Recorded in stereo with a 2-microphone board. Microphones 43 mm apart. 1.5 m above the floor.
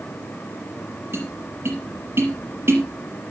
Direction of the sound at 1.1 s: 65° right (ahead or behind).